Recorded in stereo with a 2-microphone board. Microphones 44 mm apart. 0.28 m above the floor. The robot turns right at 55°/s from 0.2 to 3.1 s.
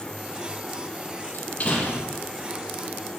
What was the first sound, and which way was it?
A door slam, 130° left.